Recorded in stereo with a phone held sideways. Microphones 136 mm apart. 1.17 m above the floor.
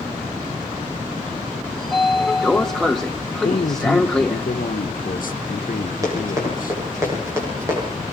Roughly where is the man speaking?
Left.